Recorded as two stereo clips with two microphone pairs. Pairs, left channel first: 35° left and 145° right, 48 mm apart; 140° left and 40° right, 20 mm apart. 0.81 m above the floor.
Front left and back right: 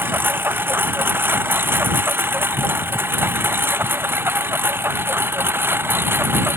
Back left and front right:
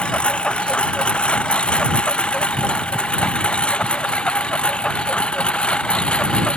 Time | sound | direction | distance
0.0 | a lawn mower | 175° left | ?